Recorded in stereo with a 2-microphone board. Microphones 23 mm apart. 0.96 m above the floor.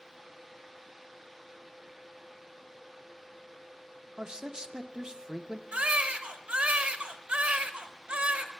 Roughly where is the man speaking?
Right.